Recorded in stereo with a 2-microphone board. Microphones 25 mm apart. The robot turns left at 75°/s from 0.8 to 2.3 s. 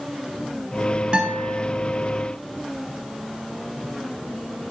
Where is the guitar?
90° right, 2 m; by 1.6 s 125° right, 2 m.